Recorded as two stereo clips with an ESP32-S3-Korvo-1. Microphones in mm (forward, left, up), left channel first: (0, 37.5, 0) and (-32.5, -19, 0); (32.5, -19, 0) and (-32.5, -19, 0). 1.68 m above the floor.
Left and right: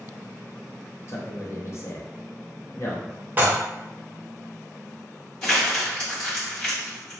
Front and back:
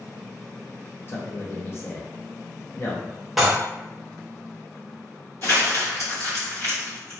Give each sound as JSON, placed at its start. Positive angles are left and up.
{"t": 1.1, "sound": "a man speaking", "azimuth_deg": 35, "distance_m": 0.7}
{"t": 3.4, "sound": "dishes clattering", "azimuth_deg": -95, "distance_m": 0.7}
{"t": 5.4, "sound": "crumpling", "azimuth_deg": -15, "distance_m": 1.3}